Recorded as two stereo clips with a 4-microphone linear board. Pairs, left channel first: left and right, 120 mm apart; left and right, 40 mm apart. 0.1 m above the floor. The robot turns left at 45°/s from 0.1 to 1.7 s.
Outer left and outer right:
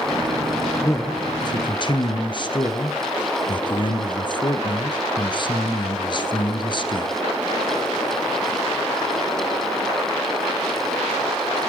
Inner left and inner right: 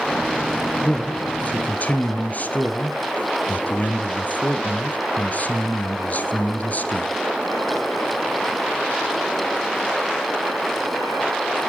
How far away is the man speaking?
About 1.5 m.